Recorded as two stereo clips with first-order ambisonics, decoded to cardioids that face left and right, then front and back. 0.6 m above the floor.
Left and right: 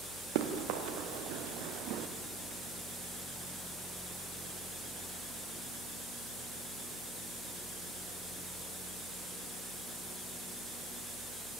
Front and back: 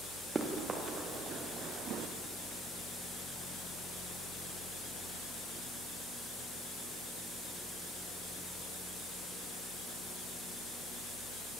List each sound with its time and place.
0.3 s running footsteps: 105° right, 4 m; by 2.1 s 130° right, 2.5 m